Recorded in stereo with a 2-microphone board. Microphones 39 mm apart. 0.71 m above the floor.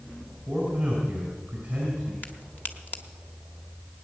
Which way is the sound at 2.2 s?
45° left (ahead or behind).